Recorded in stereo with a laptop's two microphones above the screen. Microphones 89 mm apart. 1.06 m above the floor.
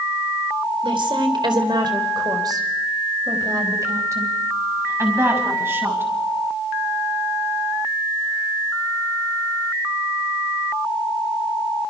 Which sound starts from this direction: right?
A woman speaking, at 0.8 s.